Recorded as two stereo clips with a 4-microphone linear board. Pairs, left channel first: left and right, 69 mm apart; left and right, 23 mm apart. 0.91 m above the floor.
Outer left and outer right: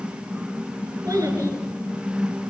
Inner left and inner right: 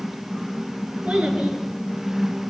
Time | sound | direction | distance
1.1 | a child speaking | 55° right (ahead or behind) | 7 m